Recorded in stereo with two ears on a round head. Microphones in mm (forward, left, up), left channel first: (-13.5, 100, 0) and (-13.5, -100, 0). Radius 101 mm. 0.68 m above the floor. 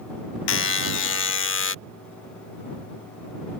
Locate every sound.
0.5 s a buzzer: 60° left (ahead or behind)